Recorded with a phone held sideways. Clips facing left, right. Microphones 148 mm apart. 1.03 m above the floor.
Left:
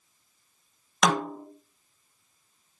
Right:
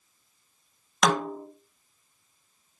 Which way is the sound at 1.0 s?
5° left (ahead or behind).